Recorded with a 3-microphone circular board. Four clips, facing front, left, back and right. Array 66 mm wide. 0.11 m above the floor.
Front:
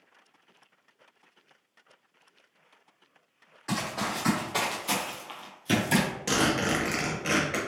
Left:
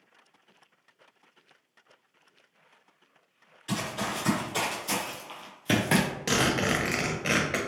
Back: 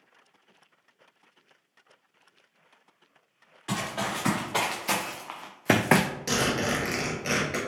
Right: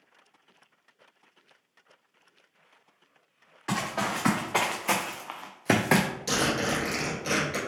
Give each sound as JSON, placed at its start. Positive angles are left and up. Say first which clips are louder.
{"t": 3.7, "sound": "running footsteps", "louder": "right 3 dB, even", "azimuth_deg": -90, "distance_m": 1.5}
{"t": 6.3, "sound": "a zipper", "louder": "left 2 dB, front 2 dB", "azimuth_deg": 85, "distance_m": 1.2}